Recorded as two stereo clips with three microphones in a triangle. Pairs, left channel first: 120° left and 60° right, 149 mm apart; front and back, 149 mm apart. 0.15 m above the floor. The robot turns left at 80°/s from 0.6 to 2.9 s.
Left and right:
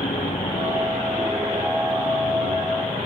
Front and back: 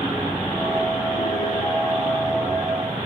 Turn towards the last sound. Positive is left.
turn(degrees=-110)